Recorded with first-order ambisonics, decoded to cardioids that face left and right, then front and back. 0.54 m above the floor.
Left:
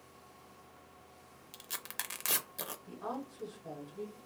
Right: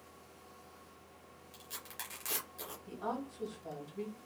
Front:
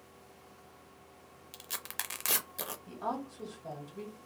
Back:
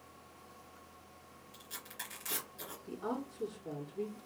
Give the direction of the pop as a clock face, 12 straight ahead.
I don't hear a pop.